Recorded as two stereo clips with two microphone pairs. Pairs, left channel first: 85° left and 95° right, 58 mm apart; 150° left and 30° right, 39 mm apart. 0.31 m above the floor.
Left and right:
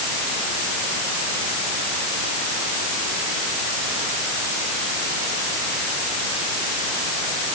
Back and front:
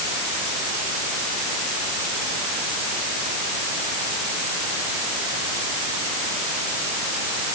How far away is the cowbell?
I don't hear a cowbell.